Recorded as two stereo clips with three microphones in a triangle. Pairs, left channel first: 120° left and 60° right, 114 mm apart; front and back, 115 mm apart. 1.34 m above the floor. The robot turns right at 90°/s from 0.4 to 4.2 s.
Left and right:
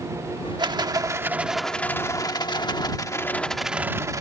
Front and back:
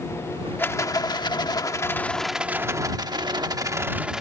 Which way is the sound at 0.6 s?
60° right.